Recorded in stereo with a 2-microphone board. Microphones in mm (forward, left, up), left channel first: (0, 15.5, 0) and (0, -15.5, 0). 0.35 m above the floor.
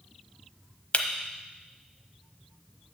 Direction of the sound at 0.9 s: 40° left (ahead or behind).